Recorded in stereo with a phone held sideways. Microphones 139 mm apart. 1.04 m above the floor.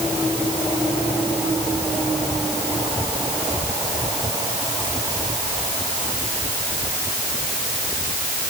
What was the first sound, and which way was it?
Only background noise.